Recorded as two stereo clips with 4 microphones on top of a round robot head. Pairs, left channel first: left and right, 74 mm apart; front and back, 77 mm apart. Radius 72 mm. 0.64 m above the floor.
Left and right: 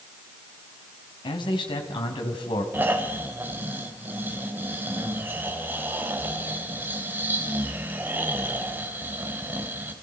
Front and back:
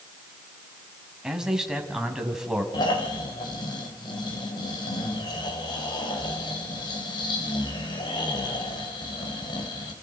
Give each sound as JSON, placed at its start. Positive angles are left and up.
{"t": 1.2, "sound": "a man speaking", "azimuth_deg": 95, "distance_m": 4.5}
{"t": 2.7, "sound": "snoring", "azimuth_deg": -30, "distance_m": 3.5}